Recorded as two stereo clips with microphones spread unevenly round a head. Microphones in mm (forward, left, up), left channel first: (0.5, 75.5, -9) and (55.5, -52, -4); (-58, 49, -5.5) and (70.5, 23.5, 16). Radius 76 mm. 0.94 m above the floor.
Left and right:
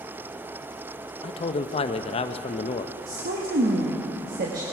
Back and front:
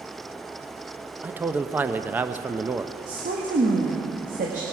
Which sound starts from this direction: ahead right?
A woman speaking, at 3.1 s.